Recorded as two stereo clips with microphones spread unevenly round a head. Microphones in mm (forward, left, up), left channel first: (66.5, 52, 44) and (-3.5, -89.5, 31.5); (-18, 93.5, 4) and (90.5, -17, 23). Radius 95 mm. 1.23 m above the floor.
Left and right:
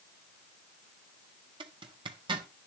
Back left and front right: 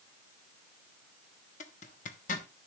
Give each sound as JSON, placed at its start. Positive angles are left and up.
{"t": 1.6, "sound": "a zipper", "azimuth_deg": 180, "distance_m": 1.1}